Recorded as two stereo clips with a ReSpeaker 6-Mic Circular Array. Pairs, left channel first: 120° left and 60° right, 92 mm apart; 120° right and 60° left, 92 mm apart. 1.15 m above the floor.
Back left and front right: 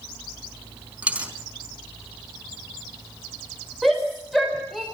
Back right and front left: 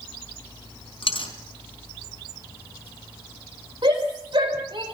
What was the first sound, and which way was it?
A dropped coin, 135° right.